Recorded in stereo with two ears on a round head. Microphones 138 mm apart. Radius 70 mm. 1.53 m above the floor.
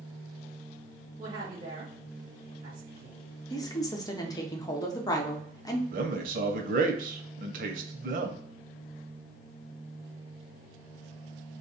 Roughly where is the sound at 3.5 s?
Left.